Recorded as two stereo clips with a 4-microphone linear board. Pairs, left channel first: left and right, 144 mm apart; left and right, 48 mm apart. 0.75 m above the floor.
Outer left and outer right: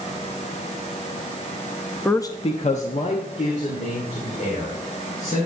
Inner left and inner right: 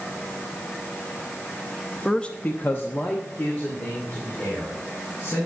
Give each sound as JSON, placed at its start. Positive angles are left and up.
{"t": 2.0, "sound": "a man speaking", "side_deg": 5, "distance_m": 0.6}